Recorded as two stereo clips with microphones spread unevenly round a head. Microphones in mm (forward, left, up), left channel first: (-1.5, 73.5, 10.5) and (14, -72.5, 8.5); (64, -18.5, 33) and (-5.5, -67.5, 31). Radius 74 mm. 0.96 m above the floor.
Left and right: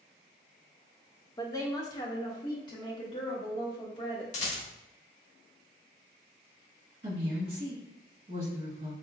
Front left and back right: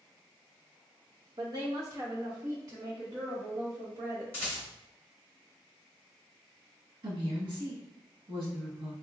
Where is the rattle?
100° left, 0.9 m.